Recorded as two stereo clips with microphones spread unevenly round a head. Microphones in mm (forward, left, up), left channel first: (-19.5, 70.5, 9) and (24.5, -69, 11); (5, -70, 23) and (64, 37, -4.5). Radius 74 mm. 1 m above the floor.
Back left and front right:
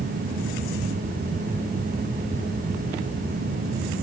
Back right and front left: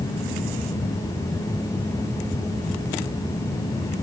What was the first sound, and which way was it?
Only background noise.